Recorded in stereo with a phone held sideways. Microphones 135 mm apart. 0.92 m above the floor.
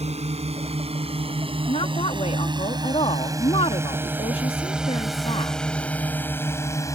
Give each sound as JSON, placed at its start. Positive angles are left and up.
{"t": 0.0, "sound": "a drone", "side_deg": -55}
{"t": 1.7, "sound": "a woman speaking", "side_deg": 45}